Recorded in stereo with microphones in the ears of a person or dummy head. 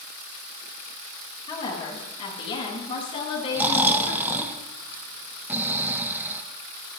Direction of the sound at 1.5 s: 35° left (ahead or behind).